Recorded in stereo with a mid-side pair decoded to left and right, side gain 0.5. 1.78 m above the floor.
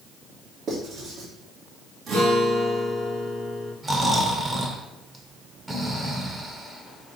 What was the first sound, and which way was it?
Writing, 60° right.